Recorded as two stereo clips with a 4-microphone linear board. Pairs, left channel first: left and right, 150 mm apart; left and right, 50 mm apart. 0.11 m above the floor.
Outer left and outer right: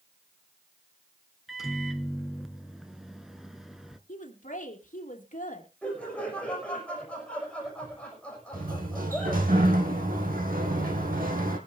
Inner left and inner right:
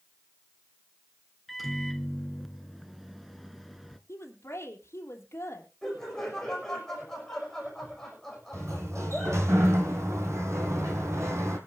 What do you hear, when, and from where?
1.5 s a microwave: centre (ahead or behind), 0.9 m
4.1 s a woman speaking: 60° left (ahead or behind), 3 m
5.8 s laughter: 5° left (ahead or behind), 6.5 m
8.5 s a sliding door: 75° right (ahead or behind), 2.5 m